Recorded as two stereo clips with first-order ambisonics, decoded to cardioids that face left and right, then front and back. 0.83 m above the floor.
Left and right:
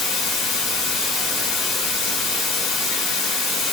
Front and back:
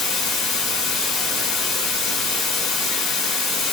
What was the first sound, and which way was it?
Running water, 40° left.